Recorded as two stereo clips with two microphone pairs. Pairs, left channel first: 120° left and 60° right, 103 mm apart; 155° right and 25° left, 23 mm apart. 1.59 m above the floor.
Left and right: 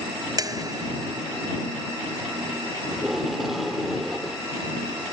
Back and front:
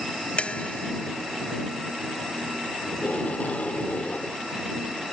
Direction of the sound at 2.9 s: 150° right.